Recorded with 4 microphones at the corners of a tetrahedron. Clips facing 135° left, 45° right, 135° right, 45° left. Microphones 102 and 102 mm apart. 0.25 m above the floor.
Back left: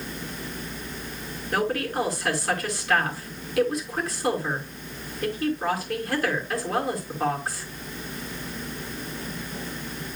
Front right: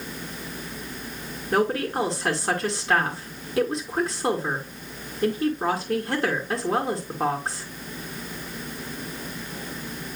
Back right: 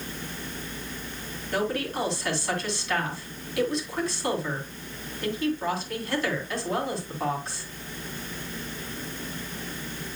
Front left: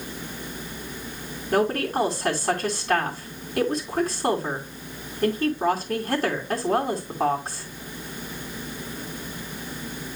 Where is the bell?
No bell in this recording.